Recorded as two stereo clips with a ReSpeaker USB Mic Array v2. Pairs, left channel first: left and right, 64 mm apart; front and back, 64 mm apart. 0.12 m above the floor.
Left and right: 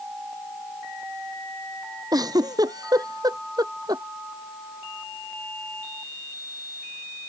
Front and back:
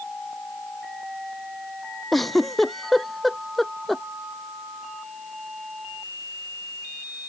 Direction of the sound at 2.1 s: 90° right.